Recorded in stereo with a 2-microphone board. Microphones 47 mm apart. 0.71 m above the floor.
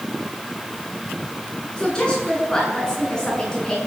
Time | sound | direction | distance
1.8 | a woman speaking | 20° left (ahead or behind) | 9 m